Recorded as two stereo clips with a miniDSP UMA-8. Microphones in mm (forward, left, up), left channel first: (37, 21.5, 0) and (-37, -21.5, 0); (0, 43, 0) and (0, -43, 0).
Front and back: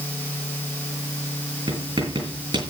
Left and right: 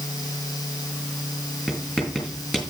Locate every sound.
1.7 s writing: 175° left, 7.5 m